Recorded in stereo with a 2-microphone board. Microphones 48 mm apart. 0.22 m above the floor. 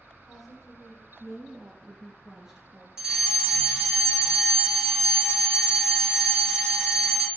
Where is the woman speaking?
5° left (ahead or behind), 5.5 m; by 2.9 s 20° right (ahead or behind), 3 m.